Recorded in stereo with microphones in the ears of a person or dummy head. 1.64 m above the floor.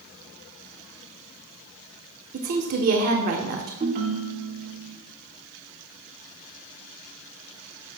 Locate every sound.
2.3 s a woman speaking: 45° right (ahead or behind), 0.9 m
3.8 s a ringtone: 40° right (ahead or behind), 1.0 m